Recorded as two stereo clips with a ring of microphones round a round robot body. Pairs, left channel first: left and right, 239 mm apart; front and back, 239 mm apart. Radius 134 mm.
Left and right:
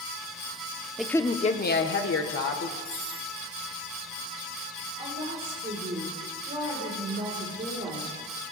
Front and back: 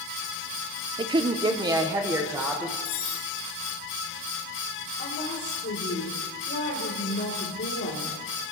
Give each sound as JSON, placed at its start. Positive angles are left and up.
{"t": 1.0, "sound": "a woman speaking", "azimuth_deg": -170, "distance_m": 0.7}
{"t": 2.9, "sound": "cutlery clinking", "azimuth_deg": 5, "distance_m": 2.5}
{"t": 5.0, "sound": "a woman speaking", "azimuth_deg": -30, "distance_m": 2.0}